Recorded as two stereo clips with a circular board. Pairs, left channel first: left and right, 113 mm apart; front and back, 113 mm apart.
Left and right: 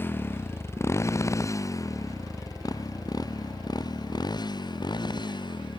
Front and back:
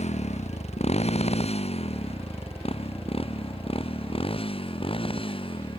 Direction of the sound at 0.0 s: 20° left.